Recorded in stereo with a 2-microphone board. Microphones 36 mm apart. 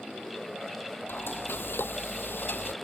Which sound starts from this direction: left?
Frying, at 1.1 s.